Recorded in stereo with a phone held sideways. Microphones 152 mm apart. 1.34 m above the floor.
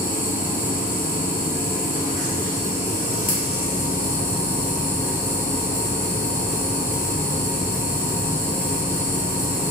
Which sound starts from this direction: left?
A machine running, at 0.0 s.